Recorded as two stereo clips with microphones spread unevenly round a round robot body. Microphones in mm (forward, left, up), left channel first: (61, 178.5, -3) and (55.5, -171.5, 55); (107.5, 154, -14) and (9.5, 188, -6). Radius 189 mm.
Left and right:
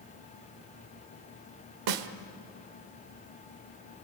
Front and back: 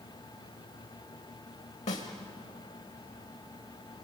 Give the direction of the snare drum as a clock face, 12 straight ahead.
2 o'clock.